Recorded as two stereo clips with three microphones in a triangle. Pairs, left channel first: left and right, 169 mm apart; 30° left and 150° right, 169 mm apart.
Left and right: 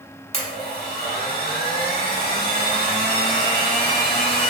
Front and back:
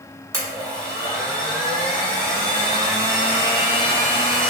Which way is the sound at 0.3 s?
140° left.